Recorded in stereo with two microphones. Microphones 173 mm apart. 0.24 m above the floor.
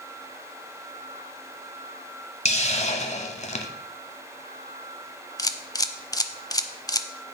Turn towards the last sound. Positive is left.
turn(degrees=20)  # may be behind; listen again after turning